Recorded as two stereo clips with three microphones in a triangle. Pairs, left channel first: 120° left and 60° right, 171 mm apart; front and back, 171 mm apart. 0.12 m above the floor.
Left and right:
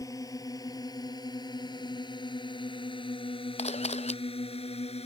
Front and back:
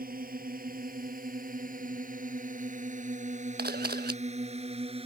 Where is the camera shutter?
165° left.